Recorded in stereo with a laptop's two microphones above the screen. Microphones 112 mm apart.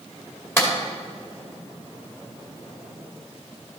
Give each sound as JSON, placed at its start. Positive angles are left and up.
{"t": 0.6, "sound": "a clap", "side_deg": 20, "distance_m": 2.5}